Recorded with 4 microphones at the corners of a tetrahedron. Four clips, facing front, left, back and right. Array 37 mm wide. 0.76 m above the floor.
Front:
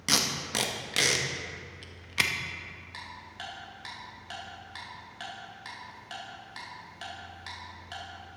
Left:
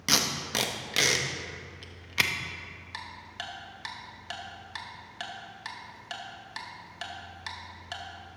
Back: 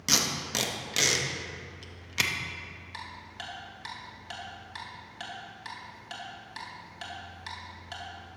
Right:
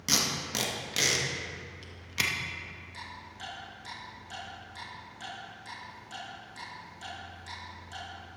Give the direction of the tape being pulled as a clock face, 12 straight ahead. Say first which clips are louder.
Left 2 dB, even; 10 o'clock.